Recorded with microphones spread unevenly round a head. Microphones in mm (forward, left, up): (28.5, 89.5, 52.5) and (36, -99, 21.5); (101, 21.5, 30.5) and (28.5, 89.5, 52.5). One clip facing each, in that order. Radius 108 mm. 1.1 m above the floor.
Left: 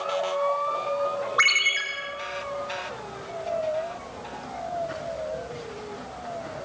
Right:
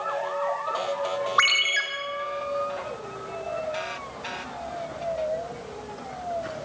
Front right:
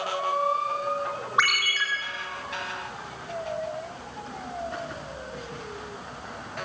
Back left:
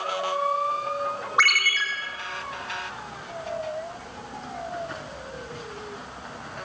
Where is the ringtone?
135° right, 1.8 m.